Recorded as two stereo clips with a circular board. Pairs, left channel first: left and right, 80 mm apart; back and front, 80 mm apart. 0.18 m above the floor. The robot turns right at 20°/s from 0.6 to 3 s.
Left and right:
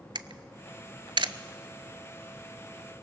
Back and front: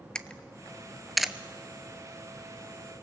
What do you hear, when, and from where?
0.1 s a camera shutter: 100° right, 0.6 m; by 1.3 s 85° right, 0.6 m